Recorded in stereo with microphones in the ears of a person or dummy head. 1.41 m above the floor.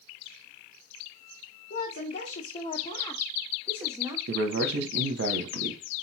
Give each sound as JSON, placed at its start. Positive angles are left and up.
{"t": 1.7, "sound": "a woman speaking", "side_deg": 55, "distance_m": 1.3}
{"t": 4.3, "sound": "a man speaking", "side_deg": -60, "distance_m": 1.1}